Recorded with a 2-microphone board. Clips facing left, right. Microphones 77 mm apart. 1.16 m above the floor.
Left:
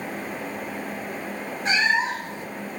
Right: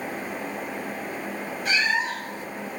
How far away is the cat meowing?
About 1.7 m.